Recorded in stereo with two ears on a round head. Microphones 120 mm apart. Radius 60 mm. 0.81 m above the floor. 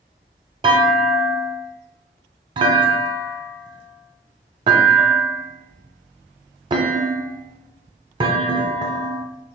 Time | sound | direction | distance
0.6 | a clunk | 35° right (ahead or behind) | 0.6 m